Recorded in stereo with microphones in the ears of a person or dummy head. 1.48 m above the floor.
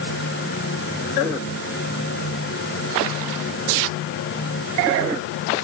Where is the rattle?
No rattle in this recording.